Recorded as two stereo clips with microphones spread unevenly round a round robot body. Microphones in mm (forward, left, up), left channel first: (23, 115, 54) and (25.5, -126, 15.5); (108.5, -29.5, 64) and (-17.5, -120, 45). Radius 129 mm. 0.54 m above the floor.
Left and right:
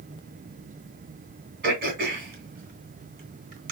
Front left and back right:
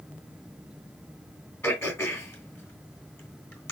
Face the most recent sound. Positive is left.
turn(degrees=-40)